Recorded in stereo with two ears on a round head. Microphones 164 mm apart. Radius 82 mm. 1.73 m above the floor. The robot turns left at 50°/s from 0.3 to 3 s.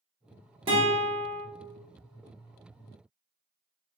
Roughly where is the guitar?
Ahead right.